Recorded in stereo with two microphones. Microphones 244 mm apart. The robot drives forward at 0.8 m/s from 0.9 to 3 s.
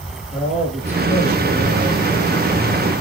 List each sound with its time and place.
0.3 s a man speaking: 10° right (ahead or behind), 5 m; by 2.6 s 5° right (ahead or behind), 6 m